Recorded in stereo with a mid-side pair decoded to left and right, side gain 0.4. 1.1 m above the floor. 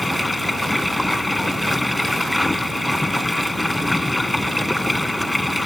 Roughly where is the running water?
Ahead.